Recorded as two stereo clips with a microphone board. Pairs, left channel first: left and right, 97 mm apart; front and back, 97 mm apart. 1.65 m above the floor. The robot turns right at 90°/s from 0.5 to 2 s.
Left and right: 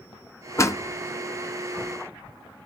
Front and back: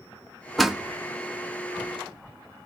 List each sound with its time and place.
0.6 s a door slam: 85° left, 0.5 m; by 2.7 s 145° right, 0.5 m